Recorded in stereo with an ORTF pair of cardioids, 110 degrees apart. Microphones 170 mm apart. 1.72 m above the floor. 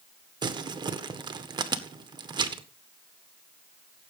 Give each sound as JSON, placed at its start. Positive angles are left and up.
{"t": 0.4, "sound": "crumpling", "azimuth_deg": -25, "distance_m": 1.7}